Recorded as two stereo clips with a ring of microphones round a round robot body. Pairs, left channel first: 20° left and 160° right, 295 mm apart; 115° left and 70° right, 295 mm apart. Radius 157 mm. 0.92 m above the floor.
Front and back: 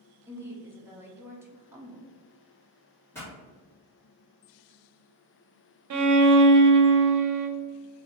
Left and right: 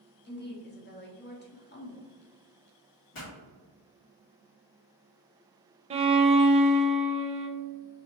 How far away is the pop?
About 1.7 m.